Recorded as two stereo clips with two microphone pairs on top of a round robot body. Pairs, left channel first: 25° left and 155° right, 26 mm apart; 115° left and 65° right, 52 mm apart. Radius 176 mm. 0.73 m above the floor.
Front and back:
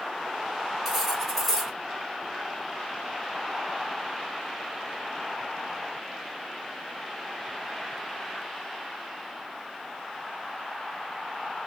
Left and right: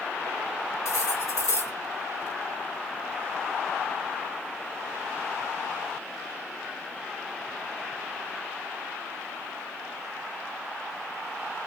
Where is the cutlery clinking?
120° left, 2.5 m.